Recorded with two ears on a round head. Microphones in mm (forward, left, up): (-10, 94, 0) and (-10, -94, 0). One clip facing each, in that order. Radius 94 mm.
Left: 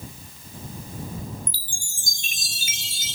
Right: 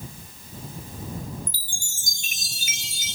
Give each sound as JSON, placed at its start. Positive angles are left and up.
{"t": 1.5, "sound": "a chime", "side_deg": 30}